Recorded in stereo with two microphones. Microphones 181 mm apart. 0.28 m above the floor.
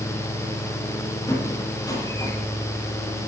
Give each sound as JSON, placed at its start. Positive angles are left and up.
{"t": 1.3, "sound": "a squeak", "side_deg": 20, "distance_m": 7.5}